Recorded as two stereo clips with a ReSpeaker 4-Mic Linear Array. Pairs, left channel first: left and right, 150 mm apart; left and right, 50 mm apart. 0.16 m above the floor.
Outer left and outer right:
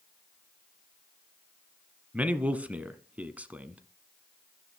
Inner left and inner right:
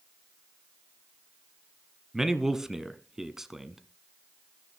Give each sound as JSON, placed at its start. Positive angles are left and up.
{"t": 2.1, "sound": "a man speaking", "side_deg": -10, "distance_m": 1.3}